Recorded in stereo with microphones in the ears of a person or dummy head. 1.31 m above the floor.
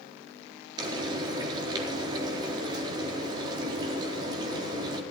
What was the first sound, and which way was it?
Frying, 25° right (ahead or behind).